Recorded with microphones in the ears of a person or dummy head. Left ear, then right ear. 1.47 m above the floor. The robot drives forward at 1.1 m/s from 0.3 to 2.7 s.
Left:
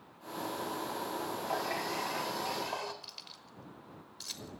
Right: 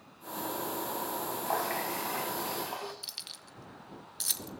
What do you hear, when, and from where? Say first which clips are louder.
1.5 s a running tap: right 3 dB; 35° right (ahead or behind), 0.8 m; by 2.9 s 15° right (ahead or behind), 1.9 m
3.0 s keys jangling: right 6 dB; 55° right (ahead or behind), 1.1 m